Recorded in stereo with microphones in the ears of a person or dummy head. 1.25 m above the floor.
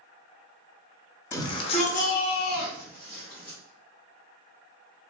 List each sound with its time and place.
1.3 s a shout: 10° left (ahead or behind), 0.6 m; by 3.6 s 45° left (ahead or behind), 1.1 m